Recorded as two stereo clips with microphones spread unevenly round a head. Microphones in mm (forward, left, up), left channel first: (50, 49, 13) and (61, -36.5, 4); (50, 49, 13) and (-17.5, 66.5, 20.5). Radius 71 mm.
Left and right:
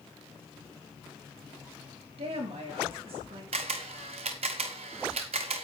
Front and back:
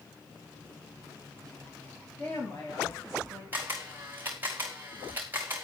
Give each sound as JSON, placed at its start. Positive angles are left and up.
{"t": 2.2, "sound": "a woman speaking", "azimuth_deg": -90, "distance_m": 4.0}
{"t": 3.5, "sound": "a camera shutter", "azimuth_deg": -120, "distance_m": 1.0}